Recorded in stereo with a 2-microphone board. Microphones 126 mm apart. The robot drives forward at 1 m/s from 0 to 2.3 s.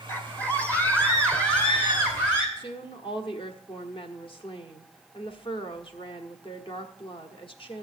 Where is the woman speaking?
45° left (ahead or behind), 1.3 m.